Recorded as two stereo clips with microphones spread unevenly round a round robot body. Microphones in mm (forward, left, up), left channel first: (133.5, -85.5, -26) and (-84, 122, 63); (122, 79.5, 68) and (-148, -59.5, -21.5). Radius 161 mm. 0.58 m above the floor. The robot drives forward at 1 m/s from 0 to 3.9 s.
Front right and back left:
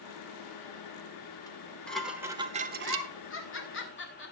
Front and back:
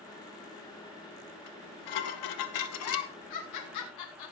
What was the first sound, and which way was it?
Dishes clattering, 30° left.